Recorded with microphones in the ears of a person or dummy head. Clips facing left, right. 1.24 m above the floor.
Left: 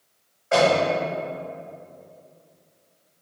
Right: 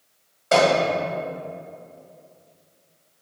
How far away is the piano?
About 1.8 m.